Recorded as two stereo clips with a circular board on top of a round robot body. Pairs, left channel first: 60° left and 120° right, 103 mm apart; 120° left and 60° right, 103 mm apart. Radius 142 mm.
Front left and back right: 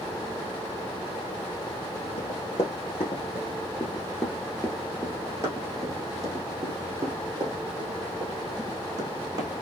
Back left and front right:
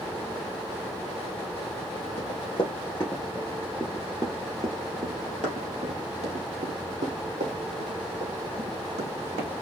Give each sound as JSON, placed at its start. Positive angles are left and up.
{"t": 2.2, "sound": "running footsteps", "azimuth_deg": 90, "distance_m": 1.4}